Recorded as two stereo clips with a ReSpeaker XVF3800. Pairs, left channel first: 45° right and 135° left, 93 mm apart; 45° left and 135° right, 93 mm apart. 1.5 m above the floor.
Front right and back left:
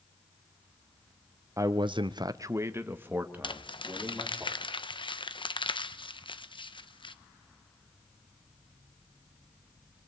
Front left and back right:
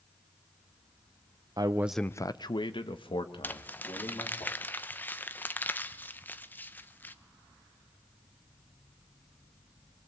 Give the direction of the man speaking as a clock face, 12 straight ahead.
6 o'clock.